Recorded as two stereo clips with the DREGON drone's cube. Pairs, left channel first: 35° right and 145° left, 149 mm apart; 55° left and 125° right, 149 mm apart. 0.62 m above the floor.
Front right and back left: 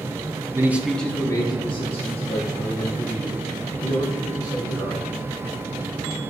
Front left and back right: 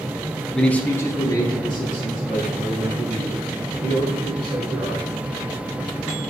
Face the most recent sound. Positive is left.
turn(degrees=0)